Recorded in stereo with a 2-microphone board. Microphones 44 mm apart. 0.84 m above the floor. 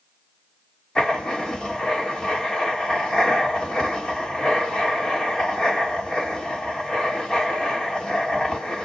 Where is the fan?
I don't hear a fan.